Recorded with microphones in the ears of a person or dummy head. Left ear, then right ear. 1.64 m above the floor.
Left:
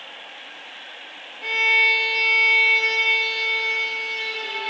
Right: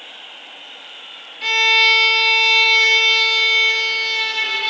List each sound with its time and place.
1.4 s a violin: 45° right (ahead or behind), 0.5 m